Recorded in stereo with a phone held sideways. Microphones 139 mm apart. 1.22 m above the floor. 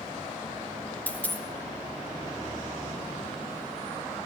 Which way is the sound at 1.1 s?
10° left (ahead or behind).